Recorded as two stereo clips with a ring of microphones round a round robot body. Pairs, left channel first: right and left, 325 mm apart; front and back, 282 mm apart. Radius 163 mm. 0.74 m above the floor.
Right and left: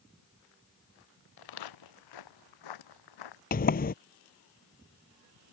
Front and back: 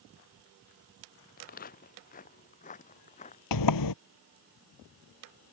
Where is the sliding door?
25° right.